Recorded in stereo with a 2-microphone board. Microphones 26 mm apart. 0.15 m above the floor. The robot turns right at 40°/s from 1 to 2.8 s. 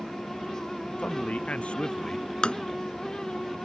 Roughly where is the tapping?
Left.